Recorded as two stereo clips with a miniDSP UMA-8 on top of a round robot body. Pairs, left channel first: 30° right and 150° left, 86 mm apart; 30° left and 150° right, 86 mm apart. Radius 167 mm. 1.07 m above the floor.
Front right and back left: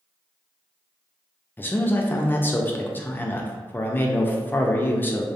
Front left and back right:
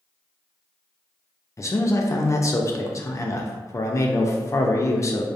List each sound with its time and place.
1.6 s a man speaking: 20° left, 0.5 m